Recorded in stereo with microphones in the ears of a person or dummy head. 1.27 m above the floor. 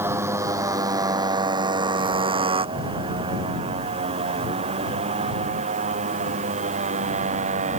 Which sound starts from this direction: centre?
A motorcycle, at 0.0 s.